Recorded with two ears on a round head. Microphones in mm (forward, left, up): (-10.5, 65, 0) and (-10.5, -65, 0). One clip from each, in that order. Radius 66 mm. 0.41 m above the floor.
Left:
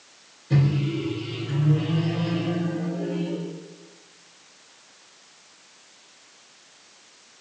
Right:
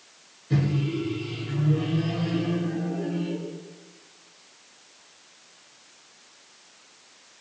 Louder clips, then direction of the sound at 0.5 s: Left 2 dB; 5° left (ahead or behind).